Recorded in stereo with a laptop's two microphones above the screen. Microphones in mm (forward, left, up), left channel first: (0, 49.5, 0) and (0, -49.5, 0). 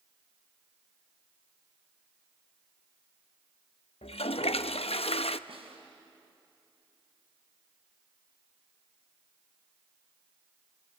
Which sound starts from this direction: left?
A toilet flushing, at 4.0 s.